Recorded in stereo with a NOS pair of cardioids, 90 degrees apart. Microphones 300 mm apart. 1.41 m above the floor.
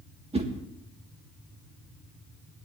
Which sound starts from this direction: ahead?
A whoosh, at 0.3 s.